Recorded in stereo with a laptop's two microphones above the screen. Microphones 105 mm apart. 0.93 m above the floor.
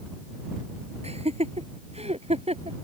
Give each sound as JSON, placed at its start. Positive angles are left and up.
{"t": 1.0, "sound": "laughter", "side_deg": -80}